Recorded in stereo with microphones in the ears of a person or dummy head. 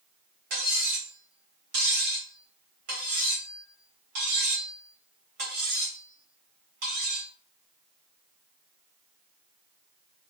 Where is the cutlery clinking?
50° right (ahead or behind), 1.4 m.